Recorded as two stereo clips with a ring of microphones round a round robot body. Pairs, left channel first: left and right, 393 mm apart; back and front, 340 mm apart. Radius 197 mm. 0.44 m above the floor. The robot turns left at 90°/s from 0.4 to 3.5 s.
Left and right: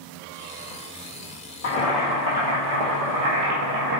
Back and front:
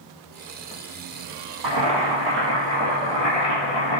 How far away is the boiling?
About 2.5 m.